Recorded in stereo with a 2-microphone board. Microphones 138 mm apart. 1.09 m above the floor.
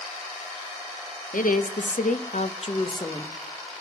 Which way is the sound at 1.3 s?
85° left.